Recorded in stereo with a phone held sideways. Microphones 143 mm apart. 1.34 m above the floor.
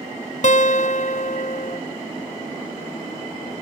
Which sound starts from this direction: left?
A guitar, at 0.4 s.